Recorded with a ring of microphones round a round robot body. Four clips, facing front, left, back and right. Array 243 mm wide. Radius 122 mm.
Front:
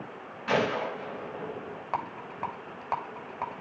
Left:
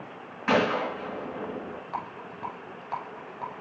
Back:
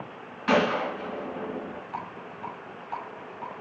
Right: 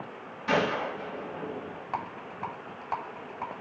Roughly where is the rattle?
Ahead.